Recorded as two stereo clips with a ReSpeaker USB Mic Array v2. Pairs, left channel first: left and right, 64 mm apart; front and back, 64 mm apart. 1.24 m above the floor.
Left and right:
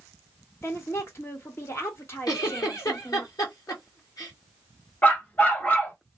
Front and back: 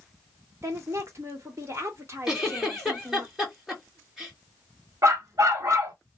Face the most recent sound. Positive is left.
turn(degrees=150)